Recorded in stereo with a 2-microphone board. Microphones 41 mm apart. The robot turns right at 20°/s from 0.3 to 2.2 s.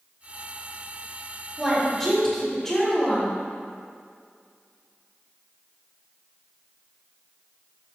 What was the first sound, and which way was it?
A woman speaking, centre (ahead or behind).